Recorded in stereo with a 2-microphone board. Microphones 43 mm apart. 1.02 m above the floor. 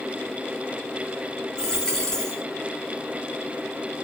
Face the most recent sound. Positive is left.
turn(degrees=15)  # may be behind; listen again after turning